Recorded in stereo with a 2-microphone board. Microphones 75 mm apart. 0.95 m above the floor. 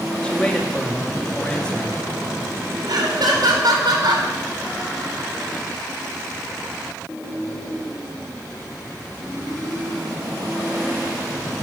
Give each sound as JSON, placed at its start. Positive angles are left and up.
{"t": 0.2, "sound": "a man speaking", "side_deg": 15, "distance_m": 1.9}
{"t": 2.9, "sound": "laughter", "side_deg": -70, "distance_m": 3.5}